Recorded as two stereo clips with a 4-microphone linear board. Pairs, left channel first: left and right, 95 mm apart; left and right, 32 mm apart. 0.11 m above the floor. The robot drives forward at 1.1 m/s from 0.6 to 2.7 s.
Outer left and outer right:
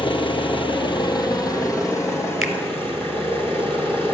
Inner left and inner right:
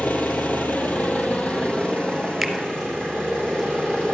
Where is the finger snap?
Centre (ahead or behind), 1.3 m.